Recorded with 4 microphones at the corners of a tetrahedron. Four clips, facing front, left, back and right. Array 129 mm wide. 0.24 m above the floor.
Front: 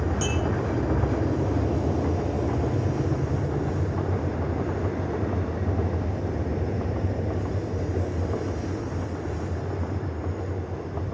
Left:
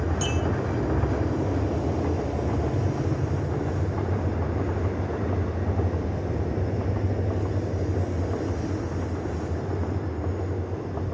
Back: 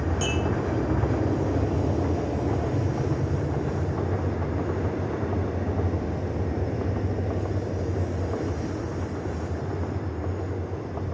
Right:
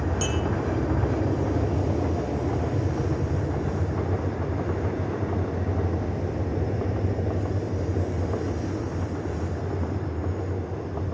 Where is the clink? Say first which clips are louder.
Even, even; 35° right, 7.5 m.